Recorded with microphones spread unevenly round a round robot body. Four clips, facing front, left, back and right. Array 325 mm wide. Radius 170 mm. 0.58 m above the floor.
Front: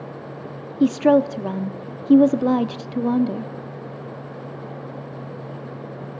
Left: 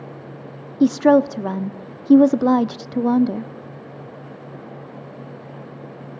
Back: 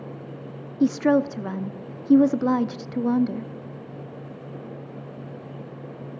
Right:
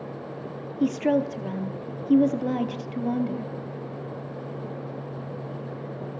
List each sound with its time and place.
0.8 s a woman speaking: 75° left, 0.8 m